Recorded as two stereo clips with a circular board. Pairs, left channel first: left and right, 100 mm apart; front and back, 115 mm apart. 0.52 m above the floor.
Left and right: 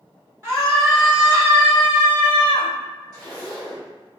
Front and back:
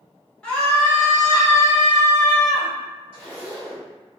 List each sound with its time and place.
0.4 s a scream: 70° right, 1.3 m; by 2.7 s 20° right, 1.9 m
3.1 s a zipper: 5° left, 1.9 m